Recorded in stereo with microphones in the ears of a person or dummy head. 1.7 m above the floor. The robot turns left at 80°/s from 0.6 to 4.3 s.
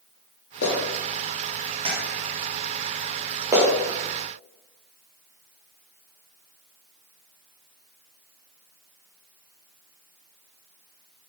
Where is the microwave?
No microwave in this recording.